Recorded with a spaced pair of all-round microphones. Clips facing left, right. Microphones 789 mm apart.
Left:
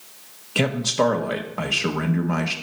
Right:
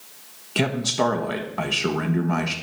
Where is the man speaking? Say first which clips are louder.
Left 1 dB; 10° left (ahead or behind), 0.9 m.